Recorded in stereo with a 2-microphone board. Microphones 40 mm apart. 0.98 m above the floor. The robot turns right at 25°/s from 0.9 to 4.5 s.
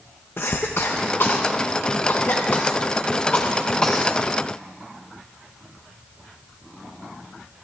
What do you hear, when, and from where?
0.4 s a cough: 65° left (ahead or behind), 0.7 m; by 4.1 s 15° left (ahead or behind), 0.7 m